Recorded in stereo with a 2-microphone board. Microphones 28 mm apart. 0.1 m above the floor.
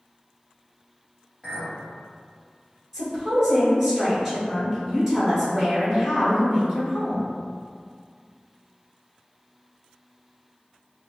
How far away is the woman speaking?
About 1.3 m.